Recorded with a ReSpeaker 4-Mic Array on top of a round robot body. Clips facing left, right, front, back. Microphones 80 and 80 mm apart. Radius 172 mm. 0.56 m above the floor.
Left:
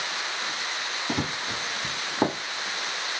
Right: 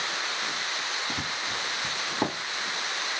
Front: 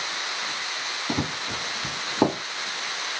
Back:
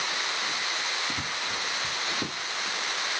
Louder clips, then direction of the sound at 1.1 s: Left 3 dB, front 4 dB; 35° left.